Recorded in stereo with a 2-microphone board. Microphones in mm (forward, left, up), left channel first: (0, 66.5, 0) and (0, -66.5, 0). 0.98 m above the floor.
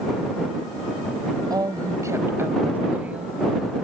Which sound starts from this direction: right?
A woman speaking, at 1.5 s.